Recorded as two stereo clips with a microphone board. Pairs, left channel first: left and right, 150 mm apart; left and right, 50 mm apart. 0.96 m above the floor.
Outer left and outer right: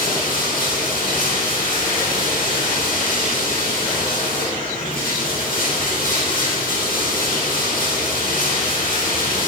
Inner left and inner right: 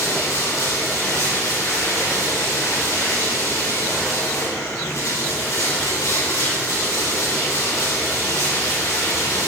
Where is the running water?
80° left, 3.5 m.